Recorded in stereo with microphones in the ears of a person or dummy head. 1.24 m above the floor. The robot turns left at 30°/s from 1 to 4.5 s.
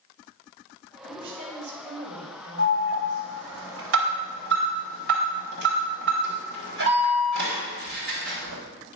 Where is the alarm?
60° right (ahead or behind), 3.5 m; by 8.6 s 65° right (ahead or behind), 3.5 m.